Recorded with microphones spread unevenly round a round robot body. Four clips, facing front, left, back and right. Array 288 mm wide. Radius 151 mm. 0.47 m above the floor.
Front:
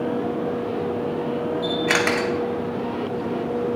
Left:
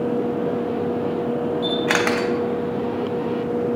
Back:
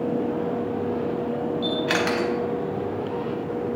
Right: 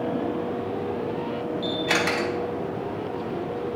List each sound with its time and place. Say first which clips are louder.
1.6 s a camera shutter: left 3 dB, front 2 dB; 65° left, 1.3 m